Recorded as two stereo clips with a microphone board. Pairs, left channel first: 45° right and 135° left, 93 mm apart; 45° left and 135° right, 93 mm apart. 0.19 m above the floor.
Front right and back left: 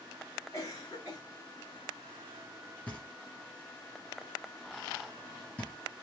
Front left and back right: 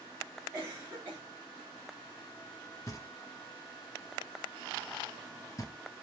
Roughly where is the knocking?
Ahead.